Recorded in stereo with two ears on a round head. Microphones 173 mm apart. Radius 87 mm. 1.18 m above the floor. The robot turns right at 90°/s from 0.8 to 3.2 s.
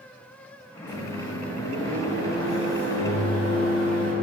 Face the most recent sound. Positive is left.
turn(degrees=75)